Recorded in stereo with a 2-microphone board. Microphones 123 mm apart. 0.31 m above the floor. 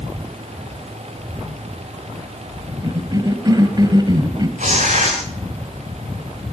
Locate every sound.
2.8 s a cough: 35° right (ahead or behind), 1.6 m
4.6 s tearing paper: 85° right, 9 m